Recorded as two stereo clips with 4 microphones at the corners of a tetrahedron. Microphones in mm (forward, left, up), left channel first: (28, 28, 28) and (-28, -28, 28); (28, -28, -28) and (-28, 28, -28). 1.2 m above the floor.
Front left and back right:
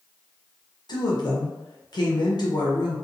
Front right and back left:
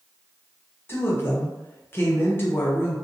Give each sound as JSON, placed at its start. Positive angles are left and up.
{"t": 0.9, "sound": "a woman speaking", "azimuth_deg": 15, "distance_m": 0.8}